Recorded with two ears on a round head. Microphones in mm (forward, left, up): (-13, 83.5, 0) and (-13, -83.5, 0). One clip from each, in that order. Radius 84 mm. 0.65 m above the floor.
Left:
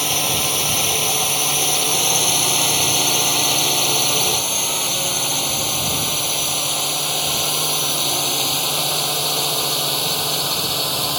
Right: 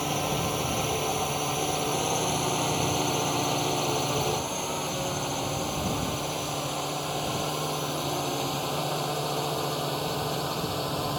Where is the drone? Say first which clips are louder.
Left 8 dB; 80° left; by 11.2 s 85° left.